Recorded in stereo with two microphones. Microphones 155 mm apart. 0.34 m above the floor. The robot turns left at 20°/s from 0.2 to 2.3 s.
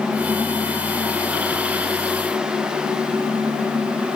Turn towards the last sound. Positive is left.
No sound to turn to.